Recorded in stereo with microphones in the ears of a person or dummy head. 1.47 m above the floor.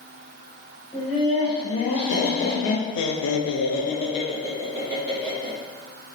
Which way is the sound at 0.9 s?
35° left (ahead or behind).